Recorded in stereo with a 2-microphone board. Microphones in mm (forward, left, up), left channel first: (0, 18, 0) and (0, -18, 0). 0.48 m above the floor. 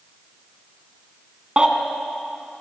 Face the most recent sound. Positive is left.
turn(degrees=-25)  # may be behind; listen again after turning